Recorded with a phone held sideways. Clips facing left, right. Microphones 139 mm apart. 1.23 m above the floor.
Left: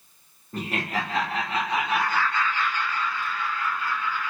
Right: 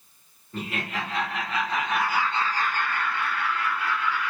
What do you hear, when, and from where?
0.5 s laughter: 40° left (ahead or behind), 1.2 m; by 4.3 s 65° right (ahead or behind), 1.4 m